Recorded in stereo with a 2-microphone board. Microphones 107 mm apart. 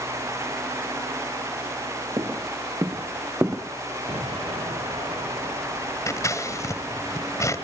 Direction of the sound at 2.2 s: 35° right (ahead or behind).